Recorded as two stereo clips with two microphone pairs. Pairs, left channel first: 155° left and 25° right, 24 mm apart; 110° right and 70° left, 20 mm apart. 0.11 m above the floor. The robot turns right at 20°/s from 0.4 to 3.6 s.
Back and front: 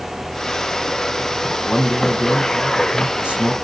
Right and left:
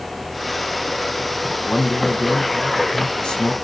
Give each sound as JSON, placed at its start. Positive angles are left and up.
{"t": 1.6, "sound": "a man speaking", "azimuth_deg": -95, "distance_m": 5.0}